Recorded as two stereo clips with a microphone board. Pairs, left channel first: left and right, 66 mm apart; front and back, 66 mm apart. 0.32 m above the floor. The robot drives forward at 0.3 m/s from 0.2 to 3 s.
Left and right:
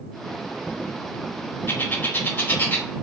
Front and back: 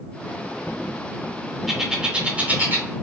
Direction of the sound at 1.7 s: 95° left.